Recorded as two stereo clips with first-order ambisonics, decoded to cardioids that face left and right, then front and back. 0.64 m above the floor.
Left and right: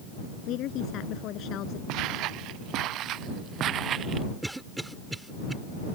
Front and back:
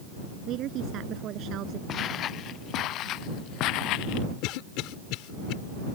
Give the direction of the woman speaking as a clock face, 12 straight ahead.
8 o'clock.